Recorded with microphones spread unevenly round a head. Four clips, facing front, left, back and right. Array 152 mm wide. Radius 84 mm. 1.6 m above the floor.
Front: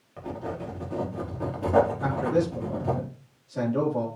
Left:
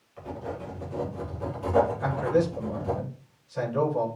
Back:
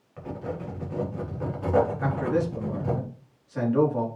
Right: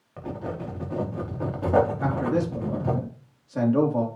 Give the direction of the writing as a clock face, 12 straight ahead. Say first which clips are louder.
Right 3 dB, even; 2 o'clock.